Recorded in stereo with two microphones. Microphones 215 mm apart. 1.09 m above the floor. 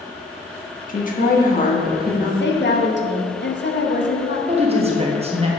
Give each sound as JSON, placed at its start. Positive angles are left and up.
{"t": 0.9, "sound": "a woman speaking", "side_deg": 40, "distance_m": 1.3}
{"t": 2.4, "sound": "a woman speaking", "side_deg": 55, "distance_m": 1.1}
{"t": 4.5, "sound": "a woman speaking", "side_deg": -30, "distance_m": 1.2}